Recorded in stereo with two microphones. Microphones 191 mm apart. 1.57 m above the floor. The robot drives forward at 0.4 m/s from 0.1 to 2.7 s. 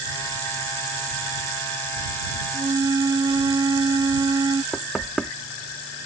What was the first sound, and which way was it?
A flute, 25° right (ahead or behind).